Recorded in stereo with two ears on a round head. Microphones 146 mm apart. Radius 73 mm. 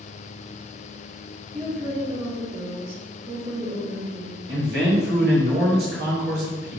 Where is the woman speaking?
35° right (ahead or behind), 1.4 m.